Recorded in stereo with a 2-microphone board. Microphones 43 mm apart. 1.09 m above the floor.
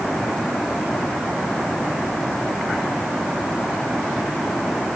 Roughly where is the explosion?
I don't hear an explosion.